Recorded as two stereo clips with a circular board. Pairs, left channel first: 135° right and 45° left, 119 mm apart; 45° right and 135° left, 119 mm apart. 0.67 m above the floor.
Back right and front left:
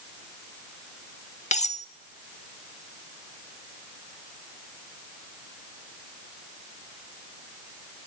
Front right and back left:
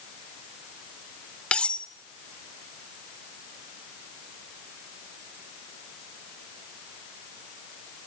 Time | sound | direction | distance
1.5 | cutlery clinking | 125° right | 1.2 m